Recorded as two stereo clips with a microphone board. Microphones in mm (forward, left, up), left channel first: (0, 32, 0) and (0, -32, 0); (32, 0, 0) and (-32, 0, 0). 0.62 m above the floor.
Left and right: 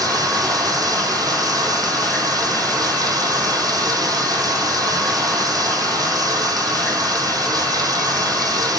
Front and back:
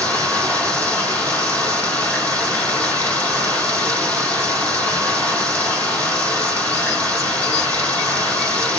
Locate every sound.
0.0 s running water: 65° right, 5 m